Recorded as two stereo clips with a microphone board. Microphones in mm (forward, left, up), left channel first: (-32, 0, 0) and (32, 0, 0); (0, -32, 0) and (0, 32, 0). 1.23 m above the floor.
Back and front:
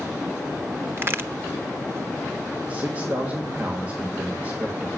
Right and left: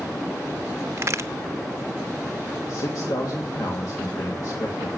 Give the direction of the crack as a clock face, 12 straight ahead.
10 o'clock.